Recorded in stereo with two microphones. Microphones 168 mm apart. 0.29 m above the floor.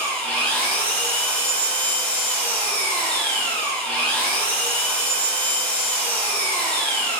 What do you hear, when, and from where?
0.0 s an engine running: 5° left (ahead or behind), 1.3 m